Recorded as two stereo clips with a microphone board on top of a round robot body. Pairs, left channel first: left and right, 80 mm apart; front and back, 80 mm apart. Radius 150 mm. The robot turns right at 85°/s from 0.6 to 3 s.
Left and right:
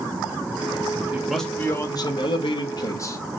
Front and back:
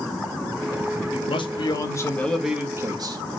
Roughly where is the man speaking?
Ahead.